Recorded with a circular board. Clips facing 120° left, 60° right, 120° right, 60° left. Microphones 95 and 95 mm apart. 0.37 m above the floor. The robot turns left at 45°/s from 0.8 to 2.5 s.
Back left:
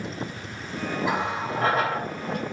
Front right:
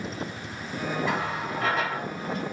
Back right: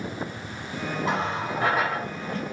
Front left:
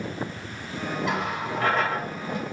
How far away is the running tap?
About 1.1 m.